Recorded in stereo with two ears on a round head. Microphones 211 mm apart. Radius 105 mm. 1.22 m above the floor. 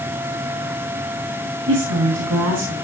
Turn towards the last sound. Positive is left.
turn(degrees=-85)